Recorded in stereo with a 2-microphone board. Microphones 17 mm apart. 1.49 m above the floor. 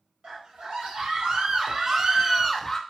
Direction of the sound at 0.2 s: 85° right.